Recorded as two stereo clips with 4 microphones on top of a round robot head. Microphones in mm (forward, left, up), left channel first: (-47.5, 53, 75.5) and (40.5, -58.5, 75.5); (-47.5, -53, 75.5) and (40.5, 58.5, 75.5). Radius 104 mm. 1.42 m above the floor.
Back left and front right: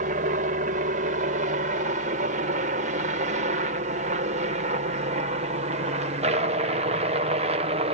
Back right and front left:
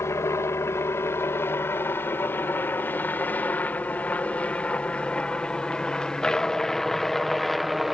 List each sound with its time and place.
0.0 s a helicopter: 60° right; by 7.9 s 40° right